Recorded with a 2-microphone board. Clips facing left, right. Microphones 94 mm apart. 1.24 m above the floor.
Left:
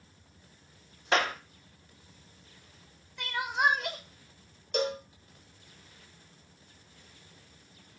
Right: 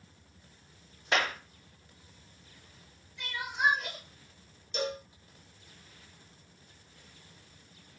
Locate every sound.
1.1 s a clap: 35° left (ahead or behind), 0.6 m
3.2 s crying: 65° left (ahead or behind), 0.5 m
4.7 s a cowbell: 60° left (ahead or behind), 0.8 m